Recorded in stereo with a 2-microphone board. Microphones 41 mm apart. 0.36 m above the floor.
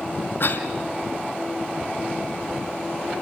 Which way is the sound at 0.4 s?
55° left (ahead or behind).